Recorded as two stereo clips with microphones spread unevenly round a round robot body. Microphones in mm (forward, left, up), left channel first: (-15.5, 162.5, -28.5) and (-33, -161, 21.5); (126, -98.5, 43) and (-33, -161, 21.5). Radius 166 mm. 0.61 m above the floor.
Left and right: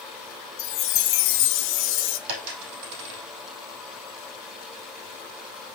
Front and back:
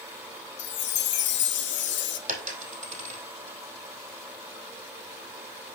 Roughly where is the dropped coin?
Right.